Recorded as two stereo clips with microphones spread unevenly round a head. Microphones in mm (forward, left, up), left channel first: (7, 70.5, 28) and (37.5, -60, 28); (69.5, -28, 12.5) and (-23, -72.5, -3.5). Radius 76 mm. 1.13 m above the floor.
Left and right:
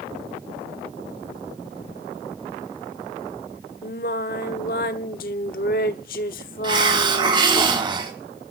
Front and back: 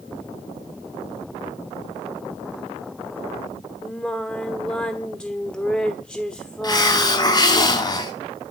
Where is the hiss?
20° right, 3.5 m.